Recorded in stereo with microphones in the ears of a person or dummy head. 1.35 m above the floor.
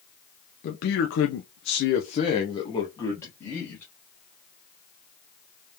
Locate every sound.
0.6 s a man speaking: 50° left (ahead or behind), 0.8 m; by 3.9 s 10° left (ahead or behind), 1.7 m